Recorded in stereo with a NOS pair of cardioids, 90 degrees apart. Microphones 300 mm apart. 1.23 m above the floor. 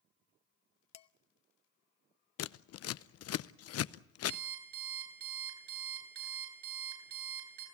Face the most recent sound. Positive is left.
turn(degrees=-70)